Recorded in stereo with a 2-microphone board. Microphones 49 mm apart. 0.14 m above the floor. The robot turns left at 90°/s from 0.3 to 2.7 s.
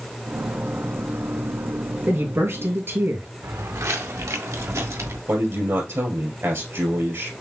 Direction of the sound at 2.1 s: 50° right.